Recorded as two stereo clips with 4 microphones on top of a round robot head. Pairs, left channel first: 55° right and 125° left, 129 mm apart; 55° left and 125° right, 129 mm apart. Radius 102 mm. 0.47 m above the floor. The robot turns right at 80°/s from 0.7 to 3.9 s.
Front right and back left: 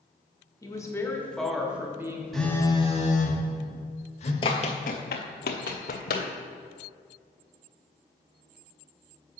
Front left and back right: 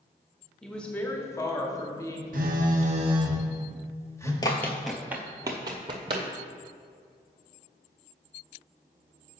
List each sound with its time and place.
0.6 s a woman speaking: 30° right, 1.3 m; by 2.2 s 95° left, 1.3 m
2.3 s a phone buzzing: 145° right, 1.3 m; by 4.3 s 15° right, 1.3 m
4.4 s running footsteps: 5° right, 0.5 m; by 6.3 s 75° right, 1.0 m